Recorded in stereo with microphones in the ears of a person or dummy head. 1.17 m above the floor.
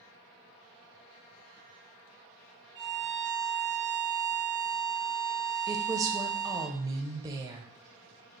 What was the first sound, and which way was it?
A violin, 20° right (ahead or behind).